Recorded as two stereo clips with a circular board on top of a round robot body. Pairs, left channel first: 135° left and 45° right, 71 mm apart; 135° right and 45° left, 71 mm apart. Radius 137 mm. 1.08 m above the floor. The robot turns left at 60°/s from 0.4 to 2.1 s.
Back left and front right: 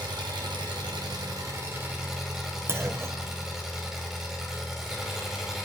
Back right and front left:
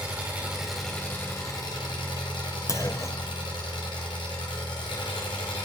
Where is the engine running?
25° right, 1.6 m; by 5.7 s 125° right, 1.6 m.